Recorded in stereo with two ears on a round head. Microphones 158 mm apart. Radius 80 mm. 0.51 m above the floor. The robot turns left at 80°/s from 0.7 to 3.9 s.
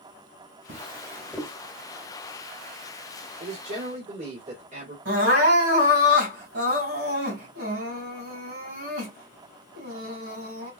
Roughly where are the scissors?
No scissors in this recording.